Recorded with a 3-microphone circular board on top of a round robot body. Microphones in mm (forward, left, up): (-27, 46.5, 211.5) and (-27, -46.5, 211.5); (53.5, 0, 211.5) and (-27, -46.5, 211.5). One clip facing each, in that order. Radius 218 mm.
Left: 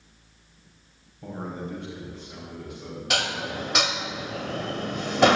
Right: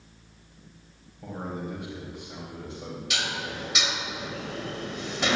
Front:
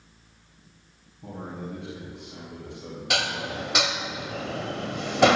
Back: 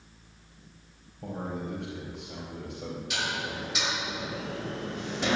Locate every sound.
1.2 s a man speaking: straight behind, 4 m; by 3.0 s 145° right, 3.5 m
3.1 s dishes clattering: 55° left, 1.1 m